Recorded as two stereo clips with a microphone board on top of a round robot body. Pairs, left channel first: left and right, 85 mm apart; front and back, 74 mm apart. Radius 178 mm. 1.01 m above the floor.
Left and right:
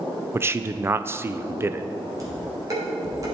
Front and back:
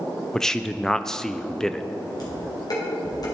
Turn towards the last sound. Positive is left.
turn(degrees=-35)